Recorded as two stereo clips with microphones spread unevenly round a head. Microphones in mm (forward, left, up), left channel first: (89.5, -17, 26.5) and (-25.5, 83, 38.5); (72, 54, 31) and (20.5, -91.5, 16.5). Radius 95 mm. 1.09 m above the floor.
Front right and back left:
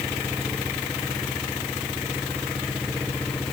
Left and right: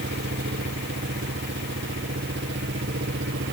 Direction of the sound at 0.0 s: 125° right.